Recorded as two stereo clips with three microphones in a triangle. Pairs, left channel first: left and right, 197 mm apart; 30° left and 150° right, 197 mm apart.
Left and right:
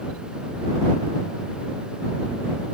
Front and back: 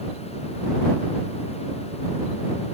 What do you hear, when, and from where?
Only background noise.